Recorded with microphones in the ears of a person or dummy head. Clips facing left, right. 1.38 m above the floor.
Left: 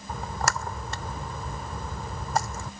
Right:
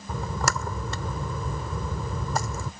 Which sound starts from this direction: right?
A splash, at 0.1 s.